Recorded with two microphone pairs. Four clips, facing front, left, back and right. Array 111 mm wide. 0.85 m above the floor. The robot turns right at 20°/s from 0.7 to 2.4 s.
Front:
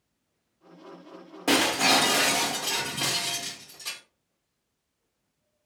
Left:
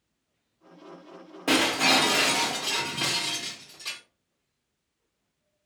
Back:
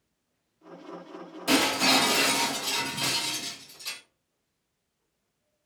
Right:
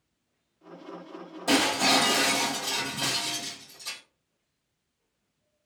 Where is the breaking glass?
30° left, 0.9 m; by 4.0 s 45° left, 0.9 m.